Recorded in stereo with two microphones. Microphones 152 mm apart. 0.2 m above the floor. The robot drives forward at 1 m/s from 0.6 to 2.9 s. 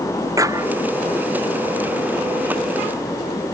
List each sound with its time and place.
0.4 s a clap: 20° right (ahead or behind)